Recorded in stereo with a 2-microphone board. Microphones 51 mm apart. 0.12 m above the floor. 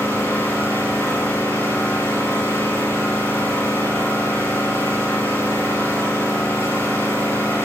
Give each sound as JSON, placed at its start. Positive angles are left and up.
{"t": 0.0, "sound": "an engine running", "side_deg": 75, "distance_m": 6.0}